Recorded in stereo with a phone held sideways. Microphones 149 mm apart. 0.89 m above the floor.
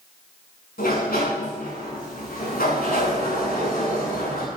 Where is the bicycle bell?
No bicycle bell in this recording.